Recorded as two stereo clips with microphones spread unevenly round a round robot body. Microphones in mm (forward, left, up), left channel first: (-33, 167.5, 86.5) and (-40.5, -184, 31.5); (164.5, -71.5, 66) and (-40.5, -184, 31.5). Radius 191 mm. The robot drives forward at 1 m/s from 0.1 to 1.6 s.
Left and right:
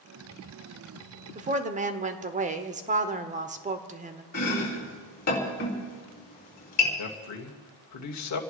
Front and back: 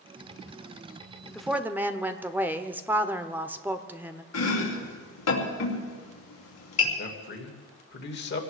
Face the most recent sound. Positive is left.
turn(degrees=60)